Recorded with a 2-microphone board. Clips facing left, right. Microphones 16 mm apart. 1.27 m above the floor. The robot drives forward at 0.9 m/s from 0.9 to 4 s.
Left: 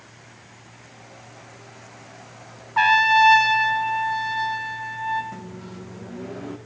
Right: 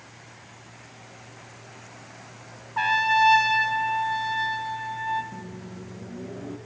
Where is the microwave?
30° left (ahead or behind), 1.0 m.